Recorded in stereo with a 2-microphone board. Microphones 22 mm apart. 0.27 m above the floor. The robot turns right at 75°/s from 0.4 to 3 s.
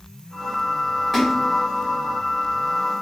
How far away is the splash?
About 2.5 m.